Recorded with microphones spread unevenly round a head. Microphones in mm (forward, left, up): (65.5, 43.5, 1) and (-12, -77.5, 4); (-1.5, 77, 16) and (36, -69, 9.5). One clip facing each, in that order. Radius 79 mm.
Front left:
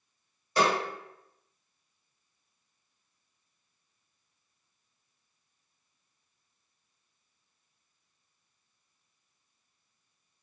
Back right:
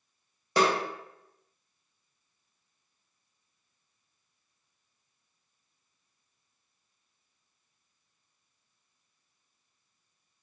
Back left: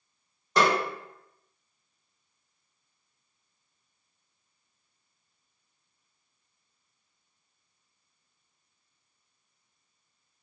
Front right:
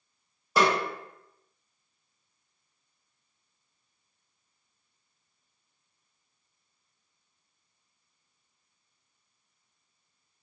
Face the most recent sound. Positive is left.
turn(degrees=-160)